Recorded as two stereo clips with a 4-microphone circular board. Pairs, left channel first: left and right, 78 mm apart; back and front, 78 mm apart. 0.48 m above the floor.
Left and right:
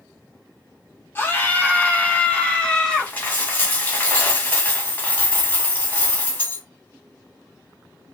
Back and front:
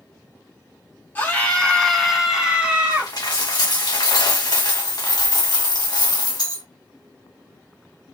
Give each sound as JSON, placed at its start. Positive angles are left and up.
{"t": 1.1, "sound": "a scream", "azimuth_deg": 130, "distance_m": 1.2}
{"t": 2.9, "sound": "a dropped coin", "azimuth_deg": 155, "distance_m": 1.7}